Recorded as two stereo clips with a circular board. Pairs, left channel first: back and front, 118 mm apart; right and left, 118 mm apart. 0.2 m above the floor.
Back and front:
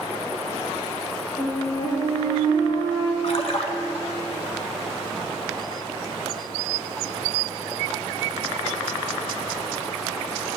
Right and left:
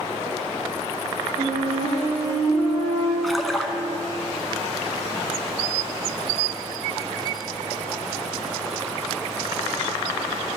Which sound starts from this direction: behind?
A splash, at 3.2 s.